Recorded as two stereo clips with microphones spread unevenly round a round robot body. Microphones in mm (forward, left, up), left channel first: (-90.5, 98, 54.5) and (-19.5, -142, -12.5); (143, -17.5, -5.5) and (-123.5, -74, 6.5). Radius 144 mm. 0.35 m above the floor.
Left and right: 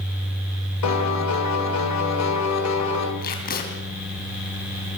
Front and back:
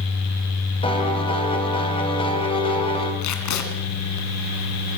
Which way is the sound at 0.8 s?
80° left.